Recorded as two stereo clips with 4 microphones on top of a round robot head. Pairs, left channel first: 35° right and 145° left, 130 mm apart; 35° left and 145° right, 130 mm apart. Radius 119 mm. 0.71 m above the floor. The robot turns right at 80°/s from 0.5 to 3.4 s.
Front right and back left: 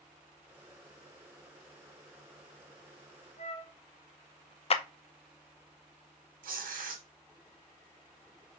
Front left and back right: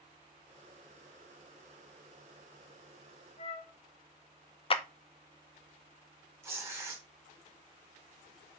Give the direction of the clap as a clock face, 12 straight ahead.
12 o'clock.